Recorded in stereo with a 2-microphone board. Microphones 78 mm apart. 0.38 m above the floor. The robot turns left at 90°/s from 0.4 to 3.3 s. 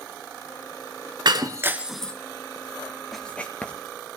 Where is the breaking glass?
60° right (ahead or behind), 0.7 m; by 2.1 s 15° left (ahead or behind), 0.7 m.